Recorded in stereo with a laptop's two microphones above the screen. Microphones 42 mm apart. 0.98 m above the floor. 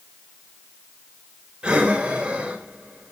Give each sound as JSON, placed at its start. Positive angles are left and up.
{"t": 1.6, "sound": "breathing", "side_deg": -25, "distance_m": 2.5}